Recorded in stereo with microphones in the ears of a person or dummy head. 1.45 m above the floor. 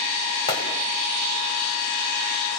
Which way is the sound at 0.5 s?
25° left (ahead or behind).